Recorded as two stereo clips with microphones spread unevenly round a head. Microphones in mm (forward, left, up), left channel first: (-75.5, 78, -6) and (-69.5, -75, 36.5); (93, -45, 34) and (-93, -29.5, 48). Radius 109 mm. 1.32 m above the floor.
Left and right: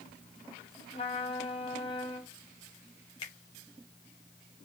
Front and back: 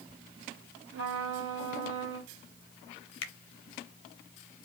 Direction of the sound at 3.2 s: 20° left.